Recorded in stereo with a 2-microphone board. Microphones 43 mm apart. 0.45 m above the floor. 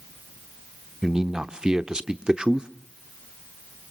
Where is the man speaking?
15° right (ahead or behind), 0.8 m.